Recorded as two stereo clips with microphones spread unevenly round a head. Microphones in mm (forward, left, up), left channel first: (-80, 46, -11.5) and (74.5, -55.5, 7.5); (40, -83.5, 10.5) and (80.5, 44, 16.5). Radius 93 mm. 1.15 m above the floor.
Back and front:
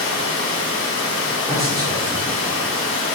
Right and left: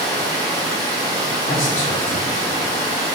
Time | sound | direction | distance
0.0 | running water | 170° left | 0.9 m
1.4 | a man speaking | 110° right | 1.6 m